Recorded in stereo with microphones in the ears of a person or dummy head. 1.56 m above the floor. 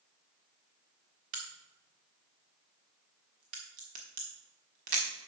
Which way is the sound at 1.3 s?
40° right (ahead or behind).